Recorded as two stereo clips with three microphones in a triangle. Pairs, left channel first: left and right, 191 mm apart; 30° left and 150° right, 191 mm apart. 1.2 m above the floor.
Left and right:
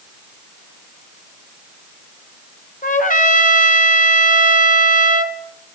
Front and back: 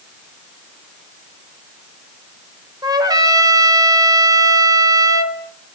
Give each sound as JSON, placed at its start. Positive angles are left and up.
{"t": 2.8, "sound": "a trumpet", "azimuth_deg": 140, "distance_m": 3.0}